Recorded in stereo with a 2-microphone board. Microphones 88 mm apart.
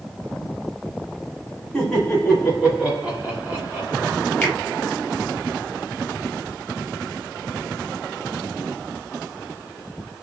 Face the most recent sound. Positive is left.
turn(degrees=20)  # may be behind; listen again after turning